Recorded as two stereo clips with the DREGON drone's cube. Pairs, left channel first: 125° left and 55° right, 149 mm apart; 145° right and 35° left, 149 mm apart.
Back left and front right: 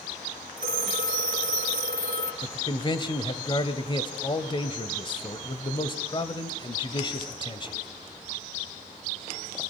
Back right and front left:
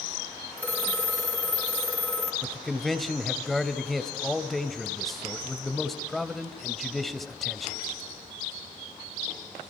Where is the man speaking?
125° left, 1.2 m.